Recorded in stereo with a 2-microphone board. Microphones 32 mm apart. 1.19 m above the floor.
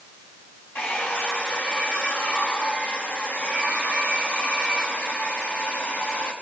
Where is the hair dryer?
80° left, 7 m.